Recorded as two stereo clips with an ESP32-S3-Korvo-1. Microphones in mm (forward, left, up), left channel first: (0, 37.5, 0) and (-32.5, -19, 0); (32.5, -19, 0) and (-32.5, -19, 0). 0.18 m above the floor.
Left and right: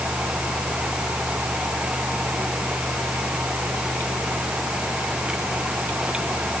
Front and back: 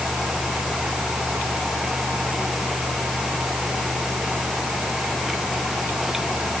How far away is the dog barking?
I don't hear a dog barking.